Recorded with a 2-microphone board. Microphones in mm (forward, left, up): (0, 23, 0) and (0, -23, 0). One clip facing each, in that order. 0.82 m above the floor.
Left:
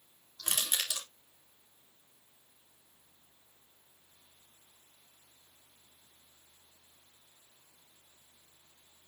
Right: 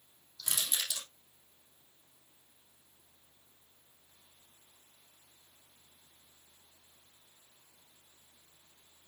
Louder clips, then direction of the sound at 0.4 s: Left 2 dB; 55° left (ahead or behind).